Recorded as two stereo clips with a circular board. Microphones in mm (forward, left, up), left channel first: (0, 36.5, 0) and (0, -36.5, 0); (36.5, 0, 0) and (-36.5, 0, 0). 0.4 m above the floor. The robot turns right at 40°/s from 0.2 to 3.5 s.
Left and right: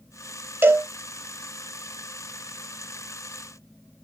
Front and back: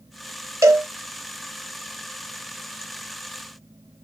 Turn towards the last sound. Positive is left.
turn(degrees=-30)